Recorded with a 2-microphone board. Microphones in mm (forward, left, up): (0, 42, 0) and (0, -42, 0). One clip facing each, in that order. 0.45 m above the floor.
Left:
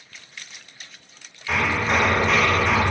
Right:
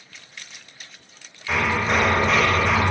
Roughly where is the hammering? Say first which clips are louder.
Even; centre.